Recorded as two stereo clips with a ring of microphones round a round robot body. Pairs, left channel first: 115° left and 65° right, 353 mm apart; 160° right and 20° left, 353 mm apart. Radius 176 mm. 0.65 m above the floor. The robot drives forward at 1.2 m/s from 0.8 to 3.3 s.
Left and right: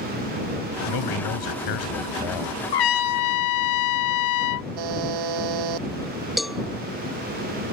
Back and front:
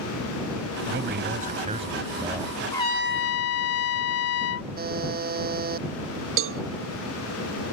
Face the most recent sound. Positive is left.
turn(degrees=20)